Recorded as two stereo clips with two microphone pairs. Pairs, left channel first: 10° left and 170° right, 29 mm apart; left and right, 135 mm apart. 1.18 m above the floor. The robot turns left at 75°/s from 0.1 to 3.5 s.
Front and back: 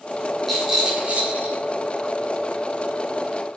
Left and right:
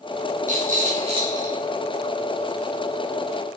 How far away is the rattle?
About 4 m.